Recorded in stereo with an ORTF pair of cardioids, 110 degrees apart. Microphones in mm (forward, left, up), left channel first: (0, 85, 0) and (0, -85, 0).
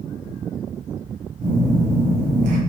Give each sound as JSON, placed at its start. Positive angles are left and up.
{"t": 1.4, "sound": "a phone buzzing", "azimuth_deg": -55, "distance_m": 1.3}